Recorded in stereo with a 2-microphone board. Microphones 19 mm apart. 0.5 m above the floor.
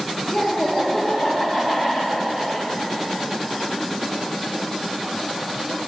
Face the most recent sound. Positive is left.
turn(degrees=-20)  # may be behind; listen again after turning